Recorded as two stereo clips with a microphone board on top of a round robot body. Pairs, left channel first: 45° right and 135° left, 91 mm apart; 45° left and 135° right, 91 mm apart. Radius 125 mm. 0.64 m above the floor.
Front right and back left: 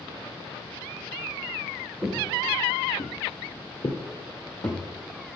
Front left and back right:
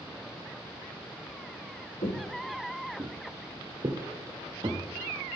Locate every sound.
2.0 s footsteps: 45° left, 1.0 m; by 4.8 s 95° right, 2.5 m